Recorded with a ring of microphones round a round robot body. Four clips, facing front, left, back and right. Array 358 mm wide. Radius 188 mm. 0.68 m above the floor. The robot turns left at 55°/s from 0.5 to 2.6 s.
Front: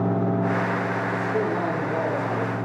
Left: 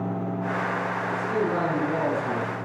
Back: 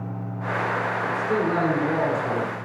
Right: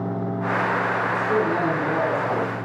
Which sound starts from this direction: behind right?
A man speaking, at 1.1 s.